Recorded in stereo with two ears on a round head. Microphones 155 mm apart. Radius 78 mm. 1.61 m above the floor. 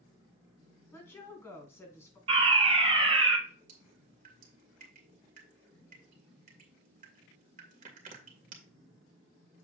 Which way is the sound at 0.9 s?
15° left (ahead or behind).